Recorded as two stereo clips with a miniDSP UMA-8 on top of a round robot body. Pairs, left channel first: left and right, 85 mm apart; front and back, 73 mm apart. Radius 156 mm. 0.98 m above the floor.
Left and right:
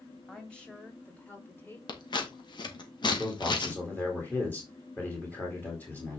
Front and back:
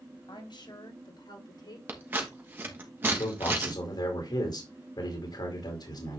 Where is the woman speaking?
10° left, 3.5 m; by 1.8 s 25° left, 3.5 m.